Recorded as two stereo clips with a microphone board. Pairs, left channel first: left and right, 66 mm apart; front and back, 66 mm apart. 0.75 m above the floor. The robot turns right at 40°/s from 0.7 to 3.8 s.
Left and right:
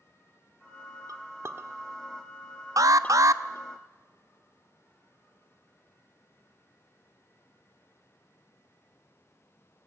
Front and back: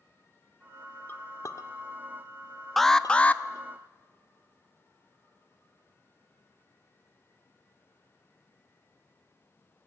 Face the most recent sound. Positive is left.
turn(degrees=-45)